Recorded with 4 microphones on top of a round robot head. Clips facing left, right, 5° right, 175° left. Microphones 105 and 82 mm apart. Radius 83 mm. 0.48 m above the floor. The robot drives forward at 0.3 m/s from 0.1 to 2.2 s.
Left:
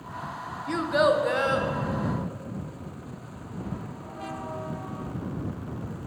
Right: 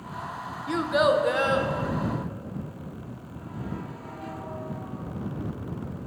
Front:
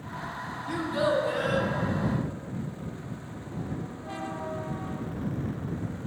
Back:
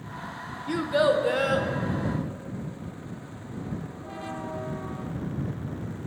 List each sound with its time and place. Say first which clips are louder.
0.7 s a child speaking: even, back 4 dB; 175° right, 0.5 m; by 1.7 s straight behind, 0.8 m